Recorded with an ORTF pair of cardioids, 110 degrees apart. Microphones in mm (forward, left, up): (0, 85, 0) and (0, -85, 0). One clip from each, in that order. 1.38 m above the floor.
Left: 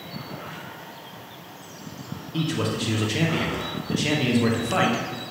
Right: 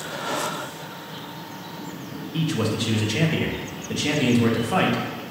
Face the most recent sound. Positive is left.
turn(degrees=-5)